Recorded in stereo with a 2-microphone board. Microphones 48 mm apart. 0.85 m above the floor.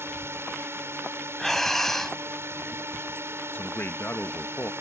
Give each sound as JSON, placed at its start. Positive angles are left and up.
{"t": 0.0, "sound": "a drone", "side_deg": -60}
{"t": 1.4, "sound": "breathing", "side_deg": 5}
{"t": 3.5, "sound": "a man speaking", "side_deg": 45}